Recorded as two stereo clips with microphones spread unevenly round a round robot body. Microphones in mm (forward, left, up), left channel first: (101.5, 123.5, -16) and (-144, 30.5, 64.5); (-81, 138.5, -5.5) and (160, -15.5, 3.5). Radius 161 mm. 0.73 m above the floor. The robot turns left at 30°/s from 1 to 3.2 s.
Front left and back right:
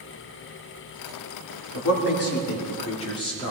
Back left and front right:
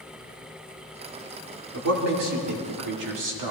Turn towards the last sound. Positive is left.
turn(degrees=-45)